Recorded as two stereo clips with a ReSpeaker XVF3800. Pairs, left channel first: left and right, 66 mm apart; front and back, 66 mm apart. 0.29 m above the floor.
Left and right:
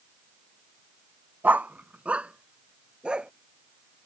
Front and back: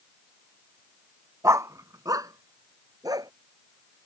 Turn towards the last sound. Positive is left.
turn(degrees=-165)